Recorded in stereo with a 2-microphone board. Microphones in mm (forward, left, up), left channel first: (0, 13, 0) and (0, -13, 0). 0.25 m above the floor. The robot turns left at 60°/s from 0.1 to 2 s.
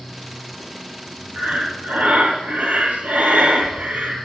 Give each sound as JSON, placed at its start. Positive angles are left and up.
{"t": 1.3, "sound": "breathing", "azimuth_deg": -55, "distance_m": 4.0}